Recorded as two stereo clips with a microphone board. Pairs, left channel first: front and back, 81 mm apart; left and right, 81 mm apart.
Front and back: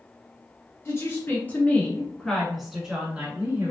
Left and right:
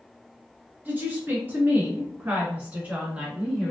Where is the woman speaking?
35° right, 1.5 m; by 3.7 s 155° right, 1.2 m.